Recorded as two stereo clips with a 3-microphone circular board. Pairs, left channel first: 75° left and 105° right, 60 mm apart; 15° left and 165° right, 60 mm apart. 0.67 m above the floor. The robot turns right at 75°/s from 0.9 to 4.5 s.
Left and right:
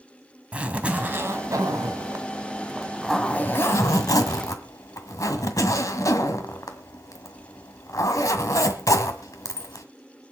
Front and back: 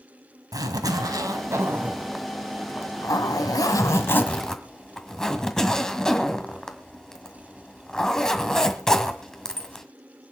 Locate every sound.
0.5 s a zipper: 175° right, 1.7 m; by 9.8 s 95° left, 1.7 m